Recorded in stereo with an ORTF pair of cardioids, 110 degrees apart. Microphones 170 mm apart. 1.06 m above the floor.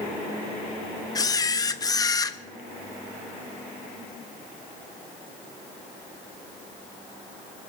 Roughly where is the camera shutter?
Ahead.